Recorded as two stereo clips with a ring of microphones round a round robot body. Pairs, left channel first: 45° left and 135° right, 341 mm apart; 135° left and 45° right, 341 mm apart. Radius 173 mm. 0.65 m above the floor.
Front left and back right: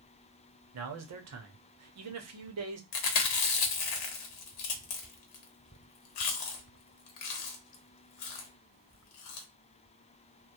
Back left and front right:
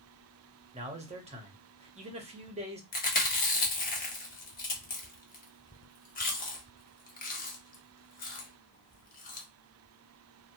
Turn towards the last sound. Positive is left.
turn(degrees=70)